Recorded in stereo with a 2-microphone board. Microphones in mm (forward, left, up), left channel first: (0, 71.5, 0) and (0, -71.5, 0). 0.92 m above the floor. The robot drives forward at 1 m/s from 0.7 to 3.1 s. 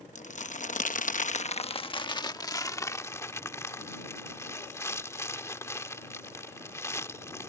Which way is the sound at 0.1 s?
60° left (ahead or behind).